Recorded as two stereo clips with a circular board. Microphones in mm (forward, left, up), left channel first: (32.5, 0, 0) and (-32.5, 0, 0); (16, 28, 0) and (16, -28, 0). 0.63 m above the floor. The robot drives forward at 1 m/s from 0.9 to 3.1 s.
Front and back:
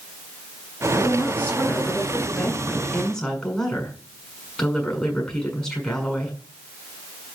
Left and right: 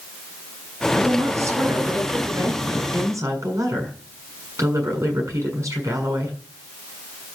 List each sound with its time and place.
0.9 s a woman speaking: 65° right, 7.5 m; by 6.4 s 80° right, 7 m